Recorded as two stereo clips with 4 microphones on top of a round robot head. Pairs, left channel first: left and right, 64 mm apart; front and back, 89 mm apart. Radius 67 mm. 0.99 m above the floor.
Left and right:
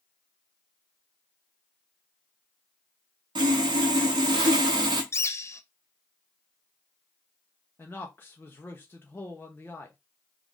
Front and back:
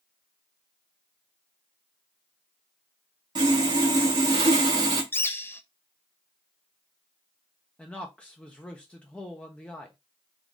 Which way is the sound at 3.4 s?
125° right.